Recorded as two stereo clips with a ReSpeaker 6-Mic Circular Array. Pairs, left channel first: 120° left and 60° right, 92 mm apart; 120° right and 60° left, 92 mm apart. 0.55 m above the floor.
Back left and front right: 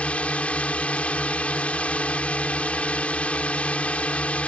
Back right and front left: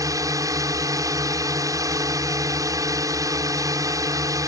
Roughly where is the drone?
Ahead left.